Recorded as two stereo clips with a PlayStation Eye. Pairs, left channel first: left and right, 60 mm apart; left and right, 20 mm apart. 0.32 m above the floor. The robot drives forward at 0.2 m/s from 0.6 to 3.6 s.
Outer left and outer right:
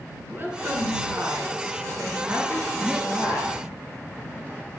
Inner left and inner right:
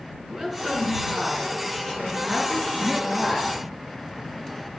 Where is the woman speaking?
35° right (ahead or behind), 4 m; by 3.5 s 30° right (ahead or behind), 4.5 m.